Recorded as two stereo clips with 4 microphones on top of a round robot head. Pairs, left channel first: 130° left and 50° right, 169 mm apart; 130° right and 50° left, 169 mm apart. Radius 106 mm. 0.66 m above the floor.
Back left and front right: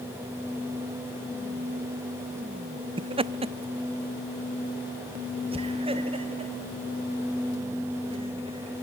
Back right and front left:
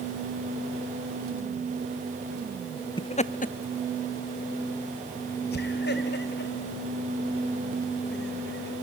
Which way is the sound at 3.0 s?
85° right.